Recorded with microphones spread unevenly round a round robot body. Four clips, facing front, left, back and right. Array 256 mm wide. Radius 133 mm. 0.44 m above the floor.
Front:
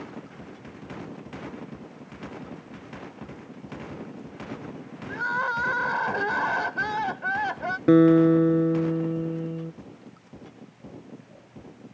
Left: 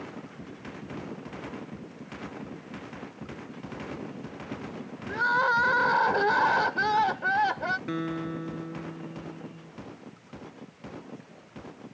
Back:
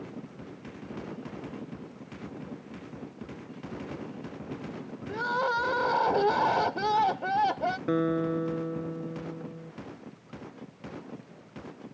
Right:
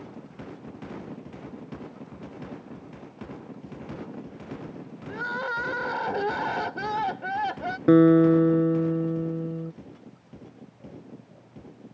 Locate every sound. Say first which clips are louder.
5.1 s crying: left 6 dB, front 1 dB; straight behind
7.9 s a guitar: right 16 dB, front 13 dB; 45° right